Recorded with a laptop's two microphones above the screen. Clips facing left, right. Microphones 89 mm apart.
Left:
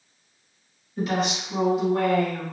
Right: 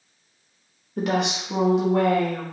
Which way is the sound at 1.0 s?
65° right (ahead or behind).